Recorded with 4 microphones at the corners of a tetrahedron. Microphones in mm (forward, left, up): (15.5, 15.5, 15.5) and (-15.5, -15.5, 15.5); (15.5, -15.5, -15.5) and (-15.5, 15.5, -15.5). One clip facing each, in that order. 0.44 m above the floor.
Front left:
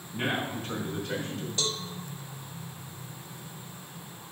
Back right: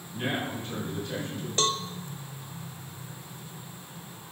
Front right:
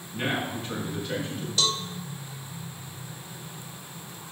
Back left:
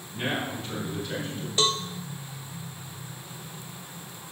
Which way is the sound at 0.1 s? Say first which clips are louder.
Front left 1 dB, front right 1 dB; 25° left.